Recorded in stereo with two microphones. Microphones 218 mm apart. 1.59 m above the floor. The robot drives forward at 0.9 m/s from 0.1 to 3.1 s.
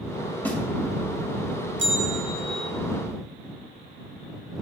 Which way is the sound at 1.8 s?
60° right (ahead or behind).